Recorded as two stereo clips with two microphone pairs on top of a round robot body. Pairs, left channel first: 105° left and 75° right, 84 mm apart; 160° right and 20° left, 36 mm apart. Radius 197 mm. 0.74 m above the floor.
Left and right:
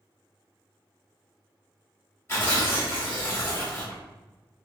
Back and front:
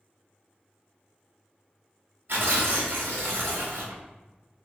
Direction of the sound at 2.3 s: 45° left.